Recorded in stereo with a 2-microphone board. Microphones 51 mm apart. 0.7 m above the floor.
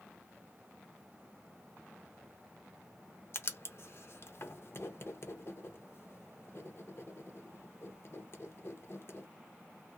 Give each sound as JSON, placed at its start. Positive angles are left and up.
{"t": 3.3, "sound": "writing", "side_deg": 60, "distance_m": 0.6}